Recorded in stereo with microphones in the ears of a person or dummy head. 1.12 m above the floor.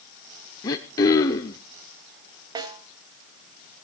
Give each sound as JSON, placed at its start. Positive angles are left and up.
{"t": 0.6, "sound": "throat clearing", "side_deg": 10, "distance_m": 0.8}
{"t": 2.5, "sound": "a snare drum", "side_deg": -25, "distance_m": 1.9}